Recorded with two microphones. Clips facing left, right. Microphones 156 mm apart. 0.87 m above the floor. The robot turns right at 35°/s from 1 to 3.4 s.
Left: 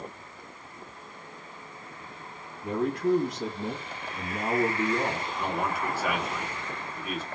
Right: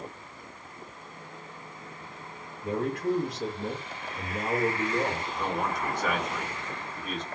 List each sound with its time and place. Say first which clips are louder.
2.6 s a man speaking: left 2 dB; 5° left (ahead or behind), 1.5 m; by 5.2 s 30° left (ahead or behind), 1.5 m
5.3 s a man speaking: even; 5° left (ahead or behind), 1.3 m